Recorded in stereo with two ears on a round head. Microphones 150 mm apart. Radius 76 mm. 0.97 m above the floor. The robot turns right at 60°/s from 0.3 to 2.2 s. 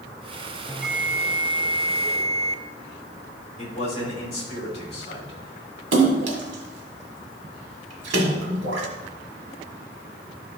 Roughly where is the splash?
Right.